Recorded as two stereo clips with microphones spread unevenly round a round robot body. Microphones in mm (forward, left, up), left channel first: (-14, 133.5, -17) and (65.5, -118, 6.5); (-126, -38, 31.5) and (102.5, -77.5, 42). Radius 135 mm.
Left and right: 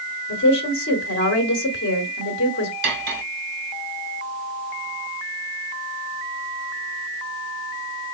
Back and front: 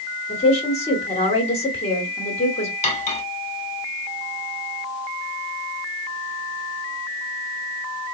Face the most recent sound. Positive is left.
turn(degrees=-130)